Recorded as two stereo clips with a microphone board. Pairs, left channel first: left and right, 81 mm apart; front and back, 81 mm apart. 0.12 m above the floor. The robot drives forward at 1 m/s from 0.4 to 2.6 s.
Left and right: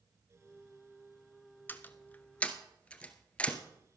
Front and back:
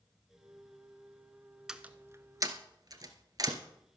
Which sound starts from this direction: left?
A door slam, at 1.7 s.